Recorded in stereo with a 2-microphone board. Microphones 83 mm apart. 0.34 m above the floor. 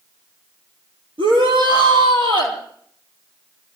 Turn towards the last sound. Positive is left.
turn(degrees=-80)